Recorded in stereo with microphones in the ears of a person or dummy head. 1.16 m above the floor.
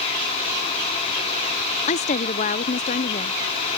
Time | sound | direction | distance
1.9 | a woman speaking | 35° left (ahead or behind) | ?